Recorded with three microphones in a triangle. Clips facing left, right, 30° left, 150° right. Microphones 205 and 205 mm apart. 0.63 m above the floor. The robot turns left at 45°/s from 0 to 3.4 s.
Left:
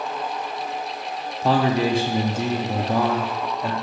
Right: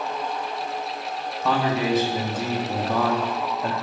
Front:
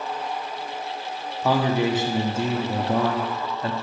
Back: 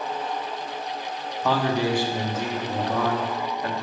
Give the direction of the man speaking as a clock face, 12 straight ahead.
9 o'clock.